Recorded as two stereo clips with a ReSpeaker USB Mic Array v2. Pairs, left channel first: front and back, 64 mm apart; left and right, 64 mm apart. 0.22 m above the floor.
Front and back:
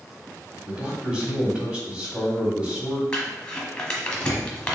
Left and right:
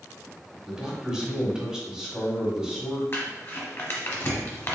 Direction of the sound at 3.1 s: 70° left.